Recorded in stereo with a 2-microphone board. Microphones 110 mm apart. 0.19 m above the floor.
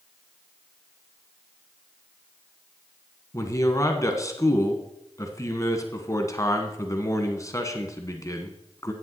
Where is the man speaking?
30° left (ahead or behind), 1.5 m.